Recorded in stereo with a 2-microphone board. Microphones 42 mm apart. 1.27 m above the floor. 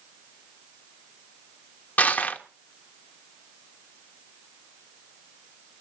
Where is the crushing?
45° left (ahead or behind), 1.0 m.